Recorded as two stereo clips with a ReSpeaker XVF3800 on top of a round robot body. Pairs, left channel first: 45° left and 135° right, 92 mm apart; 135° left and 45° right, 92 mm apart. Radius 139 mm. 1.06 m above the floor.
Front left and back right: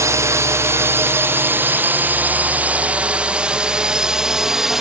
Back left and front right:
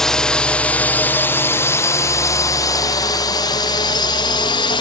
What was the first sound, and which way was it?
A drone, 145° right.